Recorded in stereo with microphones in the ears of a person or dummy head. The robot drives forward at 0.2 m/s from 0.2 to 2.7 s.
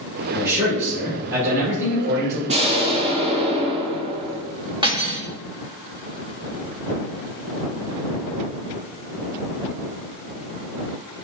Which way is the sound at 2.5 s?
30° right (ahead or behind).